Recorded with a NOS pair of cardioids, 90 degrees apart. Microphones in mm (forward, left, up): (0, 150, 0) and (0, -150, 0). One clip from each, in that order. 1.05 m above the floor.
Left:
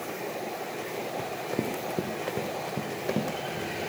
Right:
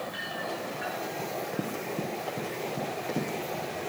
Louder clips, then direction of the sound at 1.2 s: Left 1 dB; 35° left.